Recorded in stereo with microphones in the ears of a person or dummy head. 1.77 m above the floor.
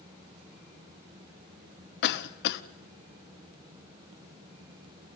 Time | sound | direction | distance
2.0 | a cough | 60° left (ahead or behind) | 1.2 m